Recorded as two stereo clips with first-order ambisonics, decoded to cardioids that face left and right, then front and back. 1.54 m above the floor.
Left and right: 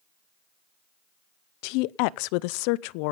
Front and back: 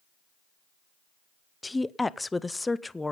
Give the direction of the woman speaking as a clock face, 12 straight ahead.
9 o'clock.